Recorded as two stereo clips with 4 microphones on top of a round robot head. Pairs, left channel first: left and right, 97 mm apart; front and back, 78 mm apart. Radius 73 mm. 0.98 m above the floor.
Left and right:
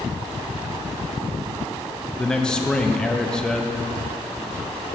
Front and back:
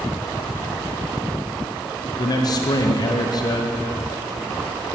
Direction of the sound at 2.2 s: 10° left.